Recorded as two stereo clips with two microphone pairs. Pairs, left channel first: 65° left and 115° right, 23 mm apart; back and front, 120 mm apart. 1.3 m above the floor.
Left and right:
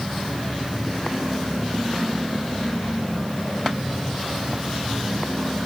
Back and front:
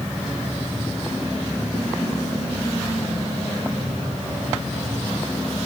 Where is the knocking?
I don't hear knocking.